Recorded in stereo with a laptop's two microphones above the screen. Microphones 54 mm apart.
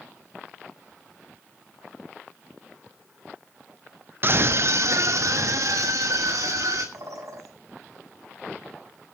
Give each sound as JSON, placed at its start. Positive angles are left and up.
{"t": 4.2, "sound": "a scream", "side_deg": -40, "distance_m": 0.6}
{"t": 6.9, "sound": "a bird", "side_deg": -75, "distance_m": 6.5}